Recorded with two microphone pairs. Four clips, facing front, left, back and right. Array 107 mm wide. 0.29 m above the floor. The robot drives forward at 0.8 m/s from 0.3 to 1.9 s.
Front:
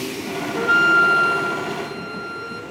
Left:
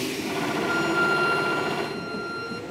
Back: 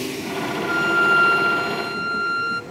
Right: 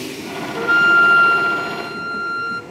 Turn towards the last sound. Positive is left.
turn(degrees=-130)